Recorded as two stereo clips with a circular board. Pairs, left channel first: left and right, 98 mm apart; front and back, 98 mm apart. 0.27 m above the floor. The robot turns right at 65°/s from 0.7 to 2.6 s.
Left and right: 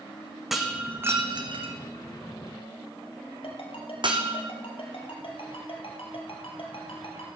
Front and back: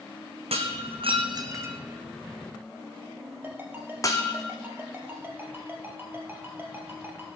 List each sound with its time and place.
0.5 s breaking glass: 175° right, 1.8 m; by 4.4 s 55° right, 1.8 m
3.4 s a ringtone: 115° left, 3 m